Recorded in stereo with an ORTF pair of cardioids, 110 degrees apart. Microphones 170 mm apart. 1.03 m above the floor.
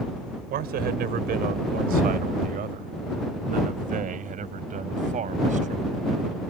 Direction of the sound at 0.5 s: 65° right.